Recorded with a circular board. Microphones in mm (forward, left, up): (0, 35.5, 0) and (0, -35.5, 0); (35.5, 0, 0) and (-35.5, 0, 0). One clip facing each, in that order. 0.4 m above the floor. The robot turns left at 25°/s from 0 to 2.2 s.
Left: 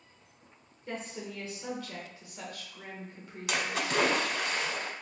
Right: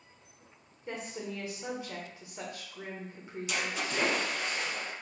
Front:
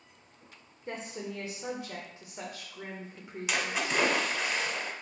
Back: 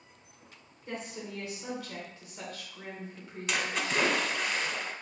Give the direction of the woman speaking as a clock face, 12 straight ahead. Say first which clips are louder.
Right 1 dB, front 1 dB; 1 o'clock.